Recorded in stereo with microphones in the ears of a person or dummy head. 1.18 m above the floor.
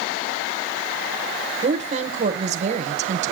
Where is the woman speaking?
40° right (ahead or behind), 0.7 m.